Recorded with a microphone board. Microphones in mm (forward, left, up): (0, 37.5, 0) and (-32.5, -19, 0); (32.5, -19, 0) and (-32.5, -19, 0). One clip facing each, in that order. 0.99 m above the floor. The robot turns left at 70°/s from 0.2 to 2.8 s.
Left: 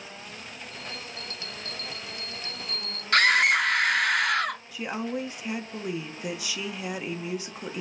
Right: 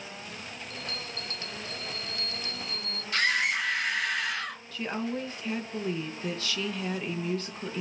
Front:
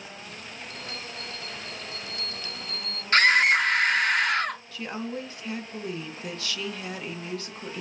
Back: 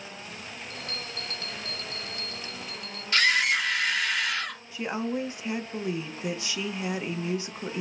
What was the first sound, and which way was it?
A bell, 125° right.